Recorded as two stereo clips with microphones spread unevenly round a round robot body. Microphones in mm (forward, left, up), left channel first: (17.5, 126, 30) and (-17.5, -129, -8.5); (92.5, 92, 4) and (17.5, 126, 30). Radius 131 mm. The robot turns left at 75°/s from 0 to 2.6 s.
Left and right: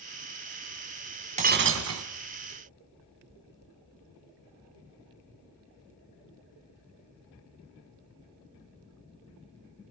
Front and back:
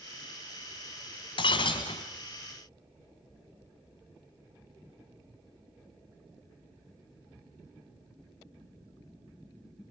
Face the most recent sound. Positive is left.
turn(degrees=-125)